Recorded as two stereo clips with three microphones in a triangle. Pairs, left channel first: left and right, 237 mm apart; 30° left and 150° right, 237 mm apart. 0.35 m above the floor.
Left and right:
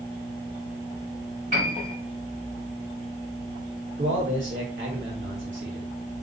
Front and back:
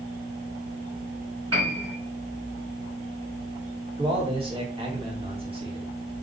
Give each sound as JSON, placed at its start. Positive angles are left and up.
{"t": 1.5, "sound": "a piano", "azimuth_deg": -145, "distance_m": 3.0}
{"t": 4.0, "sound": "a man speaking", "azimuth_deg": -90, "distance_m": 2.0}